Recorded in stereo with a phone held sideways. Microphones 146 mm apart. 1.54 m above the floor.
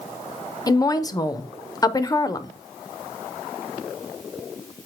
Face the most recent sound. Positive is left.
turn(degrees=25)  # may be behind; listen again after turning